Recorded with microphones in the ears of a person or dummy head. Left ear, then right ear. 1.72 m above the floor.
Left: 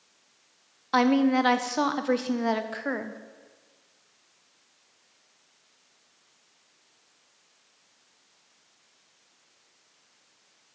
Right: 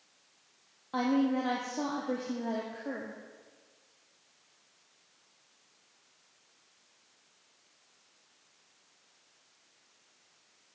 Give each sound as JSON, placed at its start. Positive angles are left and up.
{"t": 0.9, "sound": "a woman speaking", "side_deg": 45, "distance_m": 0.6}